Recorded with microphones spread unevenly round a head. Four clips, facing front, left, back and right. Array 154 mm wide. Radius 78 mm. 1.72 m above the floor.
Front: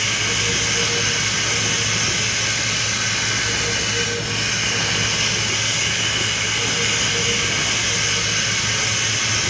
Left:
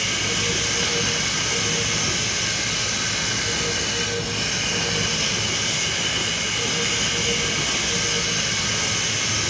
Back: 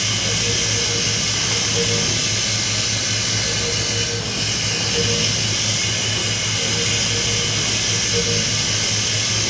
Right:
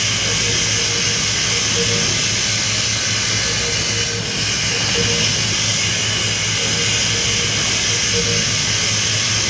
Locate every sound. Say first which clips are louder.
0.0 s running water: right 3 dB, front 1 dB; 15° right, 7 m